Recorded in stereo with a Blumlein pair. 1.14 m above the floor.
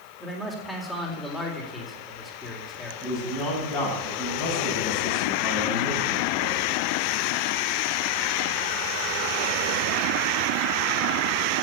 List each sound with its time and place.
0.2 s a man speaking: 10° left, 4 m
3.0 s a man speaking: 30° left, 7 m